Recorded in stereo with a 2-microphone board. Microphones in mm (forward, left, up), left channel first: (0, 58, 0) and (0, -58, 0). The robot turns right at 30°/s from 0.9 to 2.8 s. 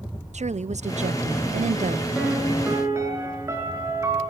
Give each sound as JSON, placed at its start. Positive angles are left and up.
{"t": 0.3, "sound": "a woman speaking", "azimuth_deg": -110, "distance_m": 0.7}
{"t": 2.1, "sound": "a piano", "side_deg": -5, "distance_m": 5.5}